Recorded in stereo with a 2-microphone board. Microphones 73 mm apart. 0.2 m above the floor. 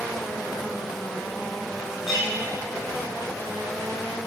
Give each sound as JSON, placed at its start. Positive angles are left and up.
{"t": 2.1, "sound": "a clink", "side_deg": -5, "distance_m": 4.0}